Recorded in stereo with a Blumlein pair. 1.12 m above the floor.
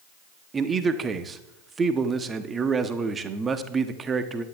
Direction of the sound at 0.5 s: 20° right.